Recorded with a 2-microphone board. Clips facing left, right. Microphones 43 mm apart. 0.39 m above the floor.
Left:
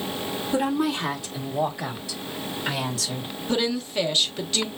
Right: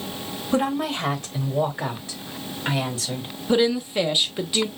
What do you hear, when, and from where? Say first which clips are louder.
0.5 s a woman speaking: right 1 dB; 50° right (ahead or behind), 2 m; by 3.3 s 30° right (ahead or behind), 2.5 m
3.5 s a woman speaking: right 5 dB; 15° right (ahead or behind), 0.8 m